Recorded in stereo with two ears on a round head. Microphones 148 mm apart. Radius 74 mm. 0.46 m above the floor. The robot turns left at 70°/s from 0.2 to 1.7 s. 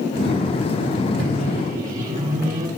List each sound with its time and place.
1.2 s a microwave: 75° right (ahead or behind), 1.9 m; by 2.7 s 50° right (ahead or behind), 1.9 m